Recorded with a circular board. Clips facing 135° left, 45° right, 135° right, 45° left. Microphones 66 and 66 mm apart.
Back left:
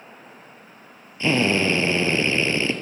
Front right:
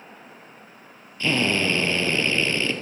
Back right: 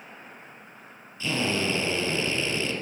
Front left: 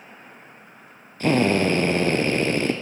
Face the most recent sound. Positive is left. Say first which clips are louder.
# back left 3 dB, front left 8 dB
turn(degrees=70)